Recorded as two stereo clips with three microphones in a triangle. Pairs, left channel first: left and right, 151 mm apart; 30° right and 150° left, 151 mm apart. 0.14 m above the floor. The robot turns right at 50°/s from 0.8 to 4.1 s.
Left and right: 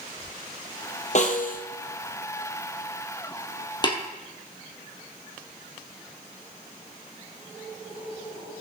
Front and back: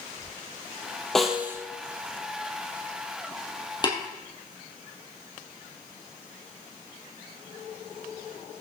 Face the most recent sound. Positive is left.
turn(degrees=45)